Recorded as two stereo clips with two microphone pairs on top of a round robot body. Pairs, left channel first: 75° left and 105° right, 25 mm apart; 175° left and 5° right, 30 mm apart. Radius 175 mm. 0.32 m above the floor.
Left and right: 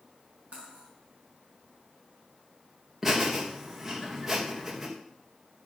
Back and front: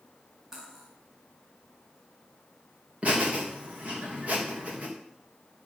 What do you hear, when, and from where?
0.5 s cutlery clinking: 80° right, 3.5 m
3.0 s laughter: 35° right, 2.5 m